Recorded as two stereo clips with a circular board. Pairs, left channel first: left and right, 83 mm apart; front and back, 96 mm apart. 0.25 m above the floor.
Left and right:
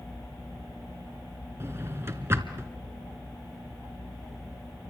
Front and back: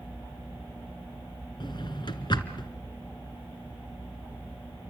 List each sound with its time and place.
1.6 s a drawer: 30° right, 1.7 m